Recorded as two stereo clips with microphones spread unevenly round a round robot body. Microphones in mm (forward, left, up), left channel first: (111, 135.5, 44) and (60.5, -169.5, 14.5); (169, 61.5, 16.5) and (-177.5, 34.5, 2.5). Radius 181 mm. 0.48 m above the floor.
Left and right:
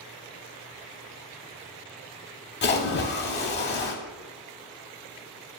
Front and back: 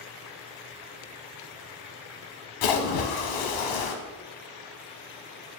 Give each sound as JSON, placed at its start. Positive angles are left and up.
{"t": 2.6, "sound": "a splash", "azimuth_deg": 20, "distance_m": 0.8}